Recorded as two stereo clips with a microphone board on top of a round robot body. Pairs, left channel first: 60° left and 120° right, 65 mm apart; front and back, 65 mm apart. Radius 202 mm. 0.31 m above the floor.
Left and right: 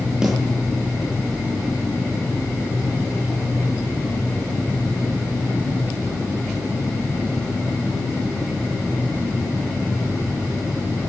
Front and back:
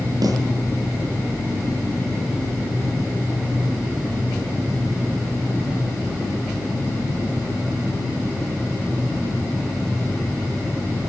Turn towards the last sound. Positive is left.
turn(degrees=160)